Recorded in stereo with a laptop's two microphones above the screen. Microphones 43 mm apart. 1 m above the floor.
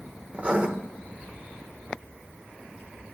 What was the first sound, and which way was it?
Writing, 30° right (ahead or behind).